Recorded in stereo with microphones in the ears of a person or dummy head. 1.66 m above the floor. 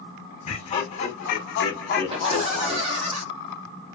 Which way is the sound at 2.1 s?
35° right (ahead or behind).